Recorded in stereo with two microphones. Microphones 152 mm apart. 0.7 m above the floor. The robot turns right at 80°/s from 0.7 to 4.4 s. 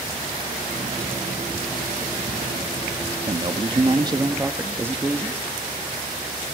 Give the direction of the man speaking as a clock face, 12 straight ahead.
4 o'clock.